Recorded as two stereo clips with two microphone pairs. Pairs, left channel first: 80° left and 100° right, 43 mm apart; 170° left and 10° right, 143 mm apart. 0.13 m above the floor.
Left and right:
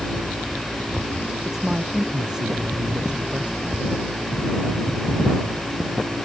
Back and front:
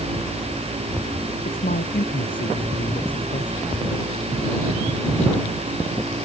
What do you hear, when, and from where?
1.4 s a man speaking: 175° left; by 3.7 s 165° right